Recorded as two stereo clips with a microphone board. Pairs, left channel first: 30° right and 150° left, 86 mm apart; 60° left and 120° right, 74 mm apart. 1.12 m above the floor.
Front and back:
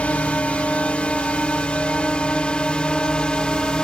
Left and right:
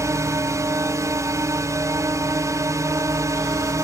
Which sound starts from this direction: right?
A drone, at 0.0 s.